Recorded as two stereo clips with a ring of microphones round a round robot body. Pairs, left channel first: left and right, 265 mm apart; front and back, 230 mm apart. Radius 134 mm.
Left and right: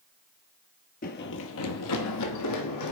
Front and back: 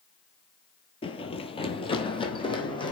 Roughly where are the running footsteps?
Ahead left.